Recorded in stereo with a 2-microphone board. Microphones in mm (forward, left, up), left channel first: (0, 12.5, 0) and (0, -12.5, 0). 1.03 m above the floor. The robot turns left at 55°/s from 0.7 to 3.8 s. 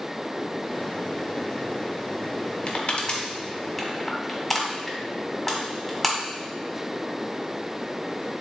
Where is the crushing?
50° left (ahead or behind), 1.8 m; by 6.2 s 5° right (ahead or behind), 1.8 m.